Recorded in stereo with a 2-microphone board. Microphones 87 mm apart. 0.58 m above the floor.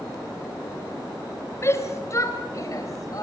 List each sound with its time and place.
1.6 s a shout: 30° left (ahead or behind), 3.5 m; by 3.2 s 45° left (ahead or behind), 4 m